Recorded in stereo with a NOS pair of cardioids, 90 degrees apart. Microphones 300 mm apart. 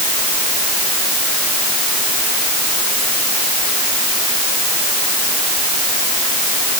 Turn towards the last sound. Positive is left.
No sound to turn to.